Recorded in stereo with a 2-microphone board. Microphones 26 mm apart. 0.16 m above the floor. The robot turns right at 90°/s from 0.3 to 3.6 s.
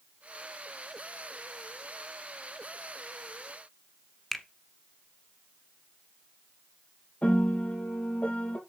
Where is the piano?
50° left (ahead or behind), 3 m.